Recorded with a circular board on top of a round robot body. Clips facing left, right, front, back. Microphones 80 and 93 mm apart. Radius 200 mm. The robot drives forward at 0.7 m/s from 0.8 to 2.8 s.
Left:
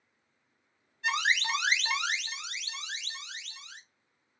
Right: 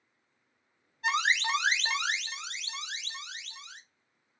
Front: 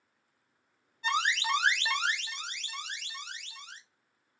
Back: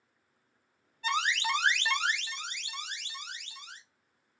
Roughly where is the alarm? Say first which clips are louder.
Right 1 dB, front 1 dB; ahead right.